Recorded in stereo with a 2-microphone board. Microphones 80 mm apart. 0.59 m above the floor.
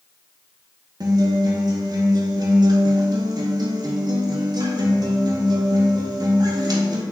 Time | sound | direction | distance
1.0 | a guitar | 60° right (ahead or behind) | 0.6 m